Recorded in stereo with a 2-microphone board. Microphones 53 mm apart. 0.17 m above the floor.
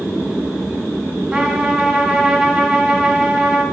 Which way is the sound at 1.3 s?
10° right (ahead or behind).